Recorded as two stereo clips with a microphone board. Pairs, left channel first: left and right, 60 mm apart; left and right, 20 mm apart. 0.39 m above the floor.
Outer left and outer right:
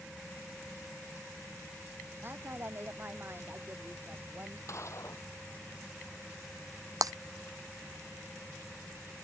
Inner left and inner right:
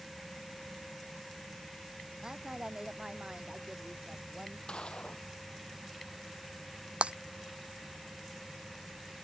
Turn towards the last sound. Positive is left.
turn(degrees=-80)